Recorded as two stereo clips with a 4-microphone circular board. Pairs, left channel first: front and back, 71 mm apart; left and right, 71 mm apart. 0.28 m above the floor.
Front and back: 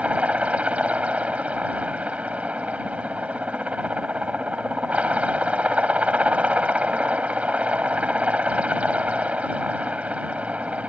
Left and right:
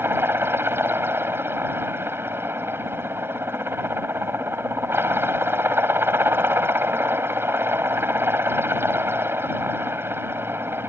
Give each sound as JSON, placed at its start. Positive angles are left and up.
{"t": 0.0, "sound": "a helicopter", "azimuth_deg": -120}